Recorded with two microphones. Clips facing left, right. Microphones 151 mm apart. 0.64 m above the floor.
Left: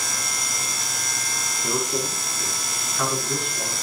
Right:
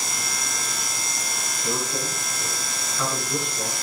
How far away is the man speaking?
About 5.5 m.